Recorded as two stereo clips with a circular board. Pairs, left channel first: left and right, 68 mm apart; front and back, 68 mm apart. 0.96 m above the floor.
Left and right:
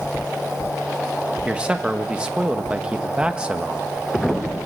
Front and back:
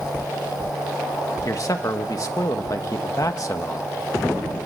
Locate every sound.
1.4 s a man speaking: 15° right, 1.2 m